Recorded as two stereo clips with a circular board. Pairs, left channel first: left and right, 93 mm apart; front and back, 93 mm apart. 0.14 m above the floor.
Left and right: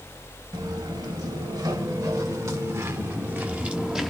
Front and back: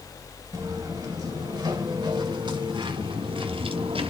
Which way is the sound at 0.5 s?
130° right.